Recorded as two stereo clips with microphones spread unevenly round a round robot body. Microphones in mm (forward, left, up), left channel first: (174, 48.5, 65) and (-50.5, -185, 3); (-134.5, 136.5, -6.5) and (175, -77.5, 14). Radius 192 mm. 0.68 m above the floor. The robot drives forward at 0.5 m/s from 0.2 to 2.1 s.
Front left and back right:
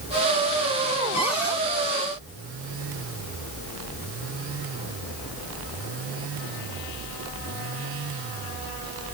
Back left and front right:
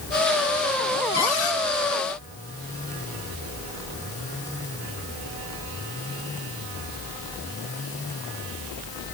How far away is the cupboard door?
About 6.5 m.